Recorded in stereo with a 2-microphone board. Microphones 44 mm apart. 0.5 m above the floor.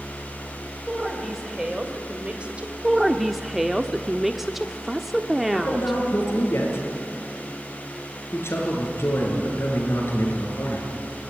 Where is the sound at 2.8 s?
5° right (ahead or behind), 0.9 m.